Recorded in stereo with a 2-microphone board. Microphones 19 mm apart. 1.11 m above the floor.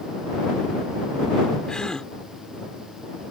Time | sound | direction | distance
1.7 | a gasp | 55° left (ahead or behind) | ?